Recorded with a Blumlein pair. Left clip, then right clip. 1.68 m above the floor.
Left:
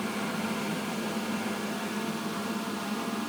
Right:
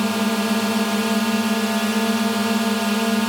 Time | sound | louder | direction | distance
0.0 | a drone | right 10 dB | 35° right | ?